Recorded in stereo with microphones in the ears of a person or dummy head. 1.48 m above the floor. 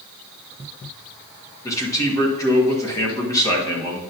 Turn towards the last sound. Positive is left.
turn(degrees=20)  # may be behind; listen again after turning